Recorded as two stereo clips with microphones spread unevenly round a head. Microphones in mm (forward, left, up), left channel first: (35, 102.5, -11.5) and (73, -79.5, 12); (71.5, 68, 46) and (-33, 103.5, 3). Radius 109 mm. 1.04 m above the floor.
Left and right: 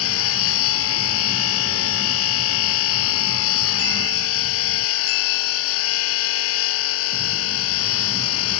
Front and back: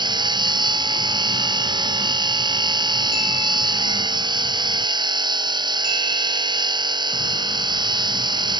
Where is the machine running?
110° left.